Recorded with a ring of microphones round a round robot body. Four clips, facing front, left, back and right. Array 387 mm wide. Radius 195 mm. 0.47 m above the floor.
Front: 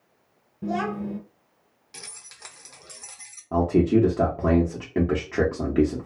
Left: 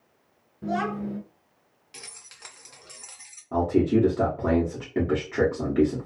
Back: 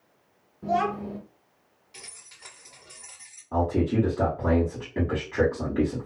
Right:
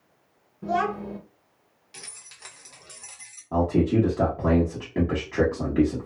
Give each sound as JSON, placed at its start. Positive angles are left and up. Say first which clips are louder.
{"t": 0.6, "sound": "a child speaking", "louder": "right 2 dB, back 2 dB", "azimuth_deg": 30, "distance_m": 1.7}
{"t": 1.9, "sound": "keys jangling", "louder": "even, front 3 dB", "azimuth_deg": 15, "distance_m": 0.8}
{"t": 3.5, "sound": "a man speaking", "louder": "even, front 4 dB", "azimuth_deg": 5, "distance_m": 1.1}